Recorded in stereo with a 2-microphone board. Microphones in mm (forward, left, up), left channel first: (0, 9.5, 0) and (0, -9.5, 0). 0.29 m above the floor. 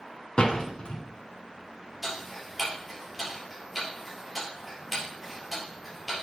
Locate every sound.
0.4 s a door slam: 55° left (ahead or behind), 2.5 m
2.0 s ticking: 5° right (ahead or behind), 3.5 m